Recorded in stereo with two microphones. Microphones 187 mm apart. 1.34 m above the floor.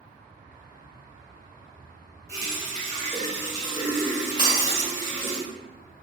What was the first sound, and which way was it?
A running tap, 15° left (ahead or behind).